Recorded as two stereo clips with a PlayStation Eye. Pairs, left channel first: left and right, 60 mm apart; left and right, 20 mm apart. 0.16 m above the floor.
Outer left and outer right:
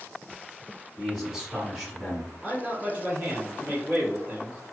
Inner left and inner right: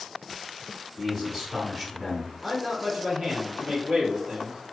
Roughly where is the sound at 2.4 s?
Centre.